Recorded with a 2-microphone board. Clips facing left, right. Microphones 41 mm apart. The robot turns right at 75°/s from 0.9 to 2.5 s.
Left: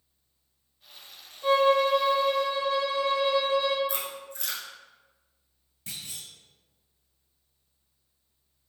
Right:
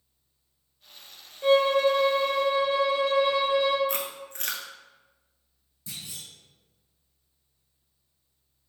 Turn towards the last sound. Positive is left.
turn(degrees=50)  # may be behind; listen again after turning